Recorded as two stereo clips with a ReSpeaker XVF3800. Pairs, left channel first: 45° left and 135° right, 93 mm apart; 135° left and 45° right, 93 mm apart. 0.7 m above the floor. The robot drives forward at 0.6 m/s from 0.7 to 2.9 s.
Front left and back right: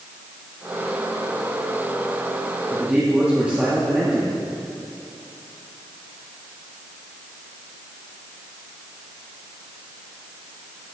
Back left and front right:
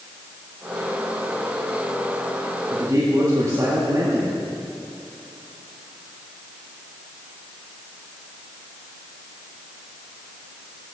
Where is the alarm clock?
I don't hear an alarm clock.